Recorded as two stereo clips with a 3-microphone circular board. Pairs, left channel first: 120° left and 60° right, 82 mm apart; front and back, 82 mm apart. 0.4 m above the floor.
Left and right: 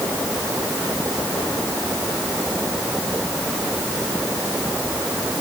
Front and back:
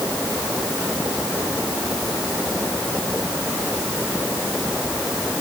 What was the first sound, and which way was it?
Only background noise.